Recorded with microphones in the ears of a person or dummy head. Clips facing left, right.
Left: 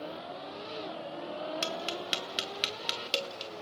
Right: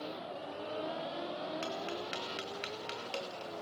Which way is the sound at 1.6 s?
45° left (ahead or behind).